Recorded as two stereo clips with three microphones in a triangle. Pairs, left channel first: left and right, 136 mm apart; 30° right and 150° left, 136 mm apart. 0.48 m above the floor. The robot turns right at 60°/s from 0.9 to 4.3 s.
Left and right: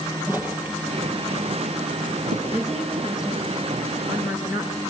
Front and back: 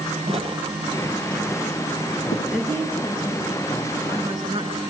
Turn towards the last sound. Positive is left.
turn(degrees=90)